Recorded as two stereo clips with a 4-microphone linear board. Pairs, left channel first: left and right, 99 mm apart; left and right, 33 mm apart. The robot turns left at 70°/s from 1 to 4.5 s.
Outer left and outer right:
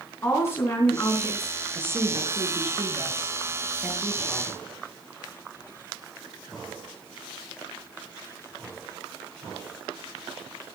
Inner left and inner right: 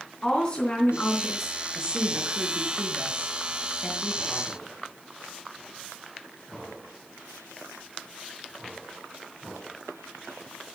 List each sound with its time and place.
0.2 s a woman speaking: 30° left, 3.5 m; by 1.6 s 10° right, 3.5 m
1.7 s a woman speaking: 15° right, 5 m; by 4.7 s 150° left, 5 m